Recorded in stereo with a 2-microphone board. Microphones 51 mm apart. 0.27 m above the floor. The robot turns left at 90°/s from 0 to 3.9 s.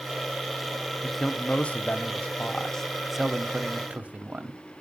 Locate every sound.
1.0 s a man speaking: centre (ahead or behind), 1.0 m; by 4.6 s 30° right (ahead or behind), 1.0 m